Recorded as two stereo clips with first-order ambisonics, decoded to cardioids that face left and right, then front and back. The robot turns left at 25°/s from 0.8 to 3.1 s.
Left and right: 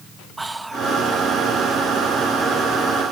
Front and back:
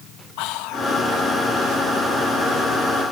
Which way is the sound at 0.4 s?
5° right.